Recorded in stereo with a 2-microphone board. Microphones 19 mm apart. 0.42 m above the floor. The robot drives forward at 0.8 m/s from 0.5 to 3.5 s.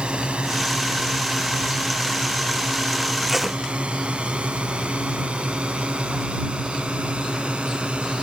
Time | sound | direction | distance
0.0 | a drone | 60° right (ahead or behind) | ?
3.3 | tape being pulled | 10° right (ahead or behind) | ?